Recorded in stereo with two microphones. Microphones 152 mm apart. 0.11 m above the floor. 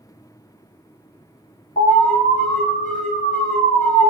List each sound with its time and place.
1.8 s an alarm: 55° left (ahead or behind), 1.9 m